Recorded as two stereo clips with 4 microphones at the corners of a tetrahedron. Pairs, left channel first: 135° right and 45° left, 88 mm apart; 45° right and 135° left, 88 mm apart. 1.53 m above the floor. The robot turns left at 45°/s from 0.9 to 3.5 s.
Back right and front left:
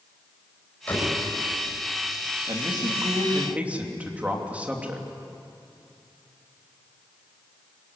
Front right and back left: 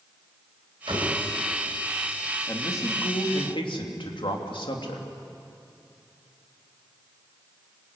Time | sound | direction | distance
0.9 | a door slam | 150° left | 7 m
2.5 | a man speaking | 15° left | 3 m